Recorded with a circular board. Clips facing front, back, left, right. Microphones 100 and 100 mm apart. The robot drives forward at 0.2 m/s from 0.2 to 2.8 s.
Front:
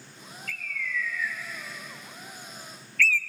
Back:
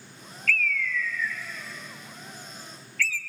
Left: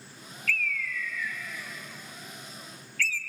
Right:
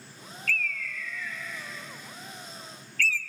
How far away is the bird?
About 0.9 m.